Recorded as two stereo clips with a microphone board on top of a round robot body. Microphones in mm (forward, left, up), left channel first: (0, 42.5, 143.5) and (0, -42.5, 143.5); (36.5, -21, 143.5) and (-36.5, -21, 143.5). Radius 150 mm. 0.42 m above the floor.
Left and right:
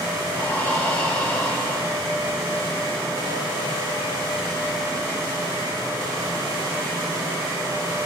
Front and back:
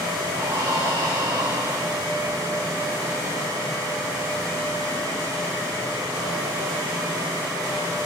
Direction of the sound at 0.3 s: 150° left.